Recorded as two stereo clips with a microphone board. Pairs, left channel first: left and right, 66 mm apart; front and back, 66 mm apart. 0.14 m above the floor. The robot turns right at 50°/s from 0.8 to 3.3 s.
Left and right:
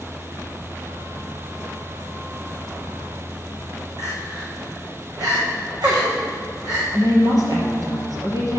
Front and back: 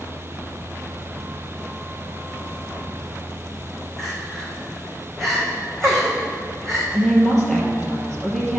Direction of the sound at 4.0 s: 85° right.